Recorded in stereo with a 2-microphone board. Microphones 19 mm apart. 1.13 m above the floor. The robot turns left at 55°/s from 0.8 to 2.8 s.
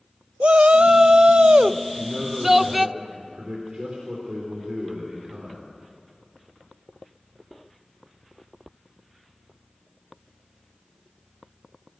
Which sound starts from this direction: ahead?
A man speaking, at 1.9 s.